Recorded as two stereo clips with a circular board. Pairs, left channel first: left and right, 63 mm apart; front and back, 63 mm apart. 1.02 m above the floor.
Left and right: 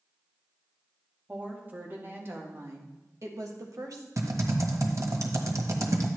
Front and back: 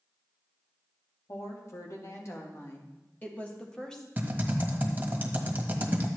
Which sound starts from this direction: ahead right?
A woman speaking, at 1.3 s.